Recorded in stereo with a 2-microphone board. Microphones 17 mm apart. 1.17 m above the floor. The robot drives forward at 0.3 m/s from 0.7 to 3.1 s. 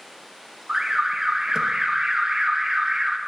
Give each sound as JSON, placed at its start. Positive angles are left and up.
{"t": 0.7, "sound": "an alarm", "side_deg": -30, "distance_m": 1.2}